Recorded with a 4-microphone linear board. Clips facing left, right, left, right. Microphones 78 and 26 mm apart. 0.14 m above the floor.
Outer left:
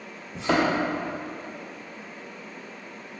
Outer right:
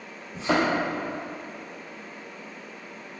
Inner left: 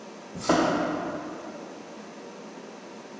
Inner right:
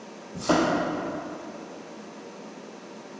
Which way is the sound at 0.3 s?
5° right (ahead or behind).